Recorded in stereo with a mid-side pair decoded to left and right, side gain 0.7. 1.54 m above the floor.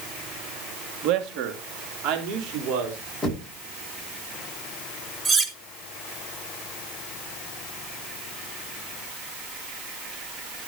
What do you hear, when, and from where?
1.0 s a man speaking: 55° right, 3 m; by 3.0 s 60° right, 5.5 m
3.2 s knocking: 5° left, 9.5 m
5.2 s cutlery clinking: 20° right, 1.9 m